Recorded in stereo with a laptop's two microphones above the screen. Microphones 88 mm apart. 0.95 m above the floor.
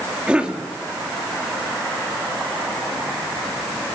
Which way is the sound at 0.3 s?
15° right (ahead or behind).